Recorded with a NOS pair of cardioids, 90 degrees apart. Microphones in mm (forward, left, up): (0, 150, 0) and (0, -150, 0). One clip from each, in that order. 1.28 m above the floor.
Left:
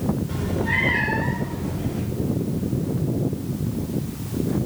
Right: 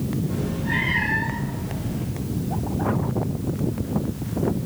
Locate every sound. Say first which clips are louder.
0.3 s a cat meowing: left 2 dB; 45° left, 2.5 m; by 2.0 s 80° left, 4.5 m